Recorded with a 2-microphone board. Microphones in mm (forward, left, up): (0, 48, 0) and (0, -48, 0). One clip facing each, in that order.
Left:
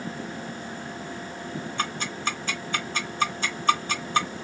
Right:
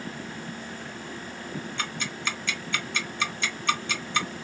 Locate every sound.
1.8 s ticking: 40° left (ahead or behind), 0.9 m